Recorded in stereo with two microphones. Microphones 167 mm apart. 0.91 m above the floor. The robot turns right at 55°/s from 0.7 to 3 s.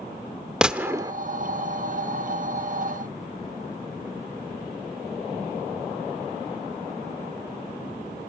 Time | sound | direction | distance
0.6 | a gunshot | 5° right (ahead or behind) | 0.8 m